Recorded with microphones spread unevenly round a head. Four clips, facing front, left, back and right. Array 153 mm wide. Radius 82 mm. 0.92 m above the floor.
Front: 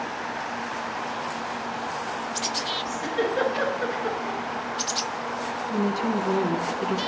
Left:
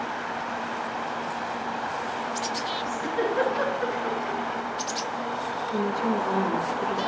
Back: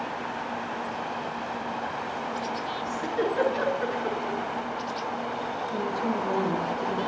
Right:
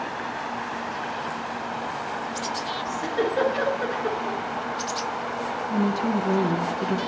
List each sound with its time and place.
2.9 s a giggle: 65° right, 4.5 m
5.7 s a woman speaking: 60° right, 2.5 m